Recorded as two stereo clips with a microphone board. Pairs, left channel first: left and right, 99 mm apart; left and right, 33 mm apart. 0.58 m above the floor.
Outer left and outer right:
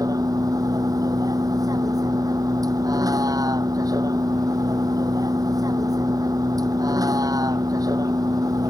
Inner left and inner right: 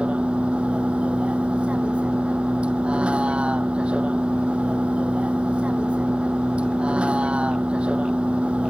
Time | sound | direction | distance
0.0 | a vehicle | 35° right (ahead or behind) | ?